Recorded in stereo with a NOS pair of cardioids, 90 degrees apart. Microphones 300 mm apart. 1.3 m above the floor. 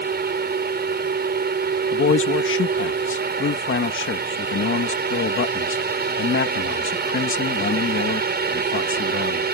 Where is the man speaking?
45° left.